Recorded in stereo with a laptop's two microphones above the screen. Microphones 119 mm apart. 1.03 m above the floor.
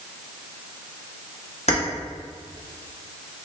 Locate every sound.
1.7 s keys jangling: 65° left (ahead or behind), 1.1 m